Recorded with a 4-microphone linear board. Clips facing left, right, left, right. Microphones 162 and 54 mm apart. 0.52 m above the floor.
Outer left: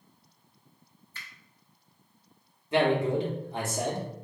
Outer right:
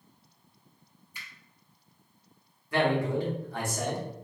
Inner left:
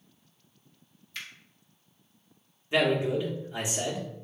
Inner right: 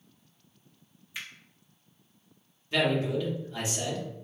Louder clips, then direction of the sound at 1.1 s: Outer left 1 dB, inner right 1 dB; 15° right (ahead or behind).